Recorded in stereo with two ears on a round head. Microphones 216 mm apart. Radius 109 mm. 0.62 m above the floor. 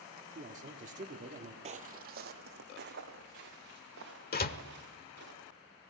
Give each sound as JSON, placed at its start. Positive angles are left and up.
{"t": 0.3, "sound": "a man speaking", "side_deg": -30, "distance_m": 1.6}
{"t": 1.6, "sound": "footsteps", "side_deg": -30, "distance_m": 0.8}
{"t": 4.3, "sound": "a door slam", "side_deg": 40, "distance_m": 1.1}